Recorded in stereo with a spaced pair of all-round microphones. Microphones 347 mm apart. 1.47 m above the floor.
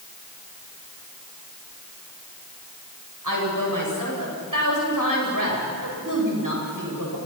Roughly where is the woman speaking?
Right.